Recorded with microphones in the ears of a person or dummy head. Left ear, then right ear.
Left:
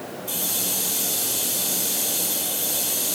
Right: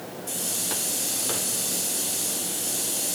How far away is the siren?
I don't hear a siren.